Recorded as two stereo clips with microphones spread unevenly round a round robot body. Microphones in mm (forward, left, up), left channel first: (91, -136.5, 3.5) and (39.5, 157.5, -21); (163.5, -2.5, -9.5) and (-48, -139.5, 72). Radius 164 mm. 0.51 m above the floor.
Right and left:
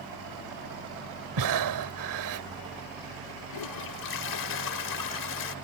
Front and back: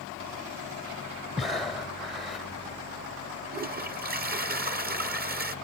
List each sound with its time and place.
1.4 s breathing: 115° left
3.5 s a toilet flushing: 85° right